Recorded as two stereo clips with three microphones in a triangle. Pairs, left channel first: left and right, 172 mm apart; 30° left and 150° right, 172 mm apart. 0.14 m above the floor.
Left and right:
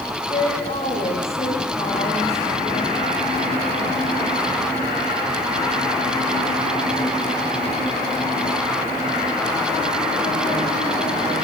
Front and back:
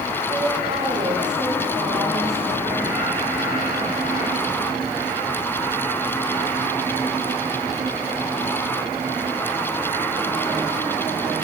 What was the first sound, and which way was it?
A woman speaking, 150° left.